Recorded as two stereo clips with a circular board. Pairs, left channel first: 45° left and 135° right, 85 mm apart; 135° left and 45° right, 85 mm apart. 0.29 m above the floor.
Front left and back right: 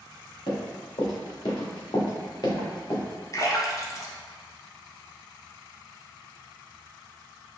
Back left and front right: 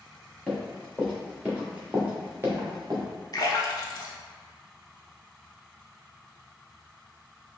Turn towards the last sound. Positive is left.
turn(degrees=95)